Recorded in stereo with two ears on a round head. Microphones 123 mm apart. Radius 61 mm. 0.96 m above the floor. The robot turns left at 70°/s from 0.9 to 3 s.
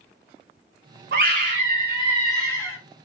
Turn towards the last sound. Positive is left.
turn(degrees=140)